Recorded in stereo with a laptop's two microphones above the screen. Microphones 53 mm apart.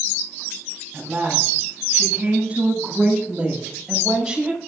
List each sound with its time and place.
0.9 s a woman speaking: 30° right (ahead or behind), 8 m; by 4.6 s 10° right (ahead or behind), 5 m